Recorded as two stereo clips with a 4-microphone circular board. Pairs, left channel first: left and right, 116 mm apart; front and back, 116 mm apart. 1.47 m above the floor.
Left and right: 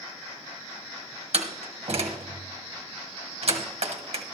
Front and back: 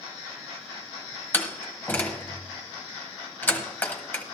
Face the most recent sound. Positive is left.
turn(degrees=-70)